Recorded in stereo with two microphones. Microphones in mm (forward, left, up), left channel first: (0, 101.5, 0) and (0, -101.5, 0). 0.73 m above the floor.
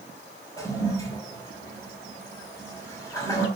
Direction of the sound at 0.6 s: 15° left (ahead or behind).